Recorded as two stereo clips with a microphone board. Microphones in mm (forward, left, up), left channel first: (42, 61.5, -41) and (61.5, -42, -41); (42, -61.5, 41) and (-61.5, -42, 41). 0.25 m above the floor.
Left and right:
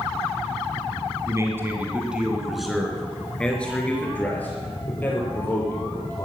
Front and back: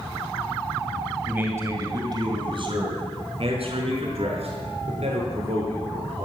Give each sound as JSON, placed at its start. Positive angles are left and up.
{"t": 1.3, "sound": "a man speaking", "azimuth_deg": -120, "distance_m": 2.0}